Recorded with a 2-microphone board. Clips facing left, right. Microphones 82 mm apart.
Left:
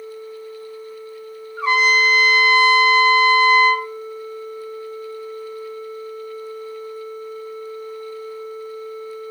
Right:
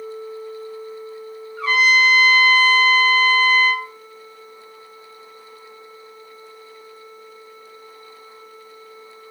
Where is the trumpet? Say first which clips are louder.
Even; 25° left (ahead or behind), 1.0 m.